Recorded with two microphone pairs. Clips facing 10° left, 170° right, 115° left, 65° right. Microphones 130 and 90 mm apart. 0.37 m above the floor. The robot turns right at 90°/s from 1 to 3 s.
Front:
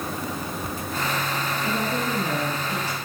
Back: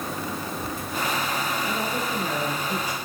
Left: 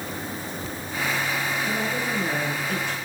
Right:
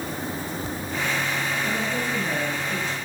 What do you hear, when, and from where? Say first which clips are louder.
1.6 s a woman speaking: front 2 dB, even; 5° left, 5 m; by 3.0 s 120° left, 5 m